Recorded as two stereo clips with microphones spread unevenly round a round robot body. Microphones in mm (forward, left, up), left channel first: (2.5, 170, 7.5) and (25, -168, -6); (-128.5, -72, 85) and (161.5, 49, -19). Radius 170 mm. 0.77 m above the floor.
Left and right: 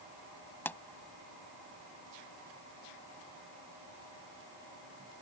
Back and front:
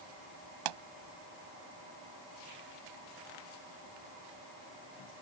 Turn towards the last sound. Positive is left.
turn(degrees=10)